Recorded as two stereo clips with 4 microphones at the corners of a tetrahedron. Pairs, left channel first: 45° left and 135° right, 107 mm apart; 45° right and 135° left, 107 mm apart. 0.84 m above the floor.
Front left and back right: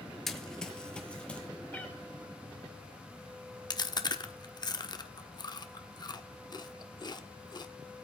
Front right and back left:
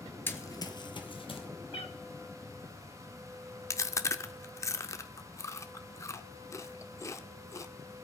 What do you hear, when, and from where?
0.3 s running footsteps: 35° right, 0.8 m; by 1.5 s 30° right, 1.6 m
1.7 s a cat meowing: 30° right, 0.8 m
3.7 s chewing: 10° left, 0.5 m